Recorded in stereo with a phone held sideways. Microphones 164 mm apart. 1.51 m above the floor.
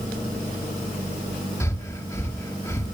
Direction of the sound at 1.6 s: 15° left (ahead or behind).